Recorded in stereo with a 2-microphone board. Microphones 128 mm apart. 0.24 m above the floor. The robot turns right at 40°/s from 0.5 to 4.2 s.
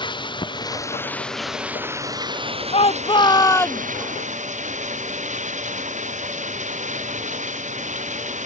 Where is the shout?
125° left; by 3.8 s 170° left.